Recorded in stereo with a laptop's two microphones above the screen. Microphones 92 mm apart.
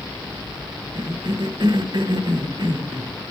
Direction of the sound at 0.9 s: 50° right (ahead or behind).